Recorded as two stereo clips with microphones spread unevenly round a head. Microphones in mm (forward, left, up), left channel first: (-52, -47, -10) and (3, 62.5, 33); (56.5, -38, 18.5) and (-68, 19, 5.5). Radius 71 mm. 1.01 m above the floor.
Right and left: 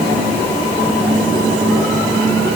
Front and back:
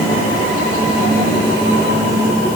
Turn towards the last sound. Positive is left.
No sound to turn to.